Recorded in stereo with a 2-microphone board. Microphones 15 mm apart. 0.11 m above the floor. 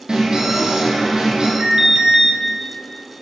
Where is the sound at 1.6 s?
45° right (ahead or behind), 1.8 m.